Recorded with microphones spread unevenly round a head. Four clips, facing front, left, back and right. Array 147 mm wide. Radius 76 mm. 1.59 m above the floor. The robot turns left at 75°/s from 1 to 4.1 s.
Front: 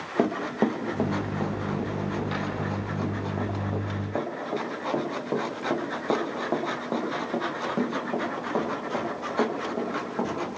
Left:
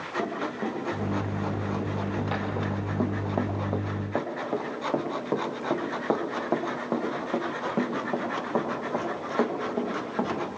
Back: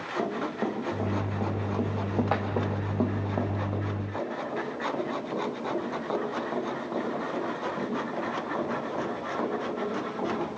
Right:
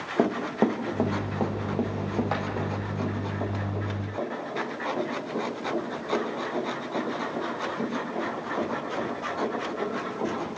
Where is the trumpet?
No trumpet in this recording.